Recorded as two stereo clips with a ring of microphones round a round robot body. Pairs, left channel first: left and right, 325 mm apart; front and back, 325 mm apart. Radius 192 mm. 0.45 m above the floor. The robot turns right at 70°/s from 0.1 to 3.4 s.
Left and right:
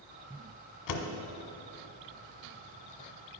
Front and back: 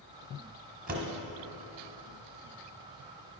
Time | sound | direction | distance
0.9 | a door slam | 115° left | 1.3 m